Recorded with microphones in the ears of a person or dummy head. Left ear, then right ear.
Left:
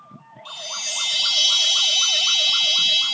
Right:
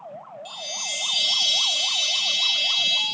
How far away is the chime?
About 2.5 m.